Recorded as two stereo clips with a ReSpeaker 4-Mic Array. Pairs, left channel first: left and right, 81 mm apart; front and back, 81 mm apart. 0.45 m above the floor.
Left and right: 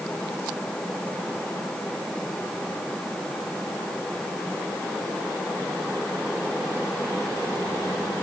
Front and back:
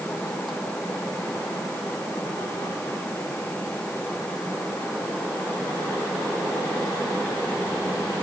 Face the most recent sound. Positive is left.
No sound to turn to.